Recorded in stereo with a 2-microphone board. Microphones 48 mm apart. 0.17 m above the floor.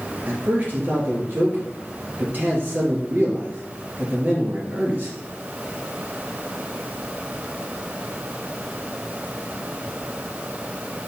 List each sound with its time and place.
0.3 s a man speaking: 40° right (ahead or behind), 3 m